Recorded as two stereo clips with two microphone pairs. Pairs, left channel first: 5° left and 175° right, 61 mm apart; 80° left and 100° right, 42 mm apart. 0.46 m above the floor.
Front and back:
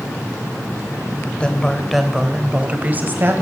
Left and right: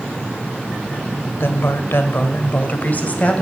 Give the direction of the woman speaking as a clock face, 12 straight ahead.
10 o'clock.